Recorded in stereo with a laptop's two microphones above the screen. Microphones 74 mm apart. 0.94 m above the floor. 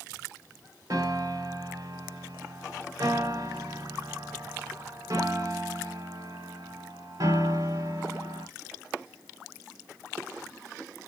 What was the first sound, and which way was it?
A piano, 55° right (ahead or behind).